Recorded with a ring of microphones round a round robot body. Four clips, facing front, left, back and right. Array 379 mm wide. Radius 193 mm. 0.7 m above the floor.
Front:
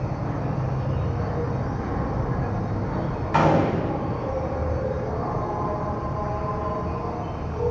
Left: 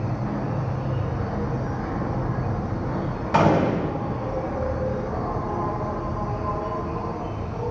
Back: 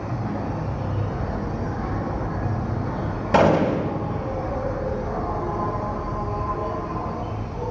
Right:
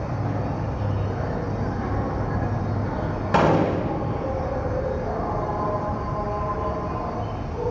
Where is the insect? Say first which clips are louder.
Even, back 1 dB; 90° right, 6 m.